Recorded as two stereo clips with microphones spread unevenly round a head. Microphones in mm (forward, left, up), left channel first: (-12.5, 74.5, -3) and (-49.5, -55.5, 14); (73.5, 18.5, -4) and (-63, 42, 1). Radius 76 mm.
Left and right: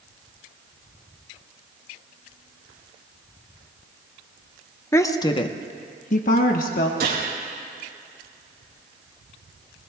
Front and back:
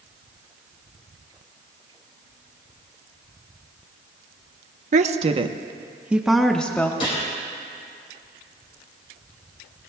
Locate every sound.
4.9 s a woman speaking: 140° left, 1.0 m; by 6.9 s 65° left, 1.3 m
7.0 s a gunshot: 65° right, 4.5 m